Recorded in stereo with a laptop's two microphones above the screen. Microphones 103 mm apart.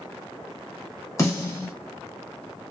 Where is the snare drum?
30° left (ahead or behind), 0.8 m.